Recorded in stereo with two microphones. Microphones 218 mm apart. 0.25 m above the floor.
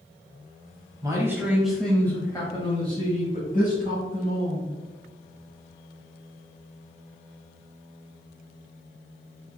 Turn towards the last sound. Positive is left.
turn(degrees=50)  # may be behind; listen again after turning